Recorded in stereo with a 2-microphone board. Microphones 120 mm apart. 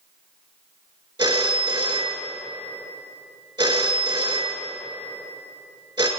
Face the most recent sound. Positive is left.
turn(degrees=-35)  # may be behind; listen again after turning